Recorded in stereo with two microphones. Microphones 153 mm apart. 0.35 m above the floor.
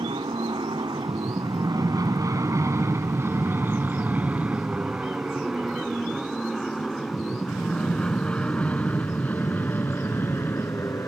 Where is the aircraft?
35° right (ahead or behind); by 11.1 s 15° left (ahead or behind).